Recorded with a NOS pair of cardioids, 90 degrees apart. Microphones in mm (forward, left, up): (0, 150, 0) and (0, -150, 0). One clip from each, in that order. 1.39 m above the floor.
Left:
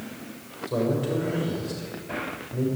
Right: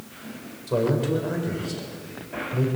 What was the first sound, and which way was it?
A man speaking, 30° right.